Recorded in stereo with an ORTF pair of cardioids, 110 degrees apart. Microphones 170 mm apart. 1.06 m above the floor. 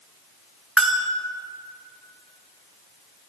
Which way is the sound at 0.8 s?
Straight ahead.